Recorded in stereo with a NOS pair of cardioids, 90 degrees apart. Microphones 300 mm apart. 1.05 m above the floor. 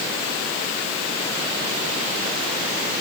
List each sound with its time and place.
Only background noise.